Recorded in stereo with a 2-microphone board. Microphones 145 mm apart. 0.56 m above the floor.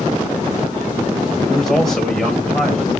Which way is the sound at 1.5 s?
Centre (ahead or behind).